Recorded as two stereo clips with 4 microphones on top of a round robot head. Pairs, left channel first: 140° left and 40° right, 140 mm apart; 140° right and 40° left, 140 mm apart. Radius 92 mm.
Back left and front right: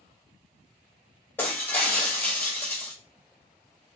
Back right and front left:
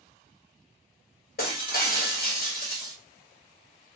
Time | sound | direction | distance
1.4 | breaking glass | 145° right | 1.5 m